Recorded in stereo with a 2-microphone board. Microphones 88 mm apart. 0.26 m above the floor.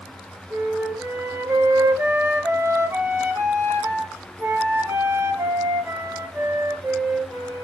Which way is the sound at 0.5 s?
30° right (ahead or behind).